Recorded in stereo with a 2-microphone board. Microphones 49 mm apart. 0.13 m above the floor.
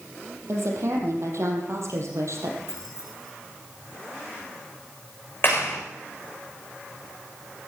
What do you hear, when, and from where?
0.5 s a woman speaking: 65° right (ahead or behind), 4.5 m; by 2.6 s 70° right (ahead or behind), 4 m
2.7 s keys jangling: 70° left (ahead or behind), 6 m
5.4 s a clap: 50° left (ahead or behind), 6.5 m